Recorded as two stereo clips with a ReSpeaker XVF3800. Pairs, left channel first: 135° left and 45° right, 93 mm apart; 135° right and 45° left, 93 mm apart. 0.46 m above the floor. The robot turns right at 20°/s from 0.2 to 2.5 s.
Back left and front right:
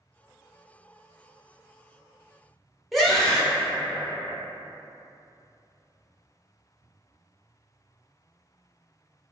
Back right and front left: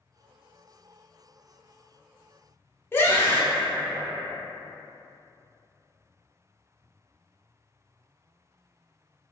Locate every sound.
2.9 s a scream: 135° right, 0.9 m